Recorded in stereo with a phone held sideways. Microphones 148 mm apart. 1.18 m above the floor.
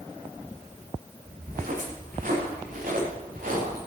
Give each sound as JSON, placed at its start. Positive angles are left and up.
{"t": 1.4, "sound": "footsteps", "side_deg": -70, "distance_m": 9.5}